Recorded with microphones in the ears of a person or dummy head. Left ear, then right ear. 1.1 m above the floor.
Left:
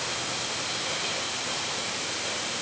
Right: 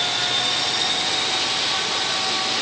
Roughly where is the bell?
I don't hear a bell.